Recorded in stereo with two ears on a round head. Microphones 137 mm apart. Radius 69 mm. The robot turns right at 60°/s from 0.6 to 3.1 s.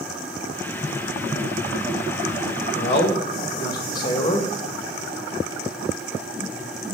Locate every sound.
2.7 s a man speaking: 50° left (ahead or behind), 1.6 m; by 4.5 s 30° left (ahead or behind), 1.6 m